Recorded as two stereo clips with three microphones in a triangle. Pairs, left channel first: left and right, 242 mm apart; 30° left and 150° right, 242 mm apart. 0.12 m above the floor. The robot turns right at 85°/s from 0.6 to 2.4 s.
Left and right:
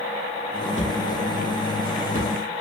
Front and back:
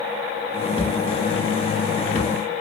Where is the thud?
35° right, 1.4 m; by 2.5 s 100° left, 1.4 m.